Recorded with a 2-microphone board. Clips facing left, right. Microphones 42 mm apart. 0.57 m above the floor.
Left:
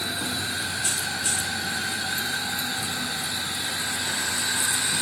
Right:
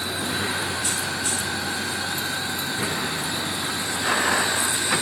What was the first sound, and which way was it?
A vehicle, 75° right (ahead or behind).